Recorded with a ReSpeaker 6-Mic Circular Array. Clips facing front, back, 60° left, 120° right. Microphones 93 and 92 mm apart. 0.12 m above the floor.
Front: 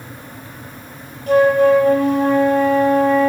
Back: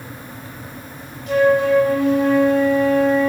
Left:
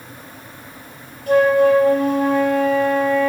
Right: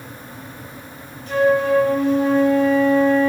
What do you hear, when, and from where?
1.3 s a flute: 25° left, 3.5 m